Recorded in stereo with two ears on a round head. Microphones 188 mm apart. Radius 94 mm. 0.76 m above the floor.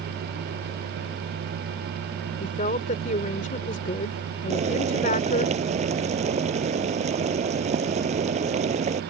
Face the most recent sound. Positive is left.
turn(degrees=-35)  # may be behind; listen again after turning